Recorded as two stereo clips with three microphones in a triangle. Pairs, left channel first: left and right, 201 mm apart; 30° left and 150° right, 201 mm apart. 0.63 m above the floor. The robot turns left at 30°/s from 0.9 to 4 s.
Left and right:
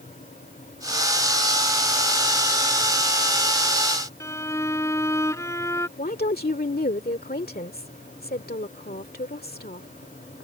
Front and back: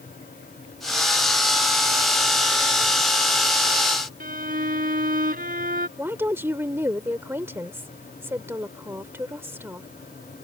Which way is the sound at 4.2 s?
165° left.